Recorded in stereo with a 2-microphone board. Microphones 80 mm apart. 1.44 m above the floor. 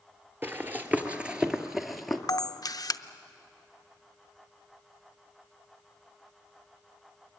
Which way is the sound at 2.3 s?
50° left (ahead or behind).